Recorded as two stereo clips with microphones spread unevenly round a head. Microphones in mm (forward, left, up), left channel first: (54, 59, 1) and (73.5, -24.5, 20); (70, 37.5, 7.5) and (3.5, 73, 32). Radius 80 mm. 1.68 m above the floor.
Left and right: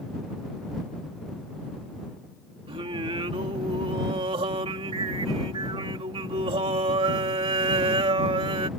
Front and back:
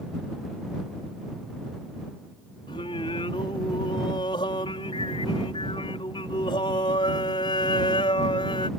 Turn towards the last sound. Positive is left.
turn(degrees=-75)